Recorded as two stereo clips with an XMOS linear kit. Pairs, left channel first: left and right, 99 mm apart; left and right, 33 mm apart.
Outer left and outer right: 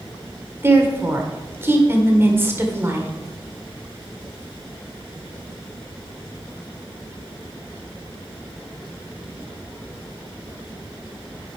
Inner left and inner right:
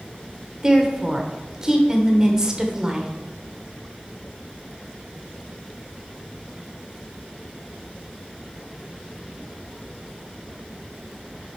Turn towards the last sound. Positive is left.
turn(degrees=-25)  # may be behind; listen again after turning